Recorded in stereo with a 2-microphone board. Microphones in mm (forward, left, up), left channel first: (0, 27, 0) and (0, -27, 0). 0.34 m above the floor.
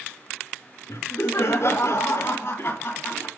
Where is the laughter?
70° left (ahead or behind), 2.5 m; by 3.3 s 40° left (ahead or behind), 2.5 m.